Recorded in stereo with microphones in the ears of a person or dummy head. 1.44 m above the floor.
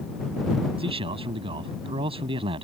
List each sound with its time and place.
0.8 s a man speaking: 30° right (ahead or behind)